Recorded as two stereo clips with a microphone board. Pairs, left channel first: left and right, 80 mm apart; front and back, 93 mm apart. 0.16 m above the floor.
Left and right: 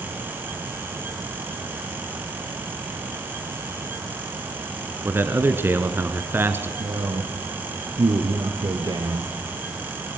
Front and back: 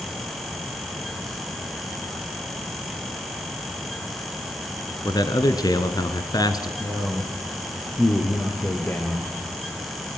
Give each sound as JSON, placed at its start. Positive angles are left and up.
{"t": 5.0, "sound": "a man speaking", "azimuth_deg": -35, "distance_m": 1.9}
{"t": 6.8, "sound": "a man speaking", "azimuth_deg": -65, "distance_m": 3.0}